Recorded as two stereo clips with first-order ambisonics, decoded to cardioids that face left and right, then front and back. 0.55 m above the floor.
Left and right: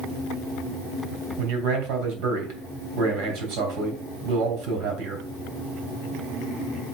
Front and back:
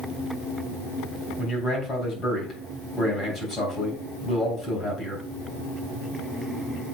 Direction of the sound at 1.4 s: 70° right.